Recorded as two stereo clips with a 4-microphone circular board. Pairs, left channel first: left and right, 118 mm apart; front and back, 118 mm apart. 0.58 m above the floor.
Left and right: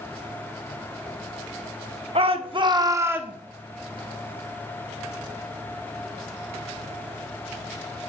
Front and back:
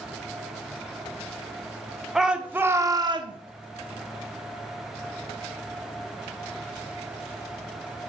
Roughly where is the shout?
Right.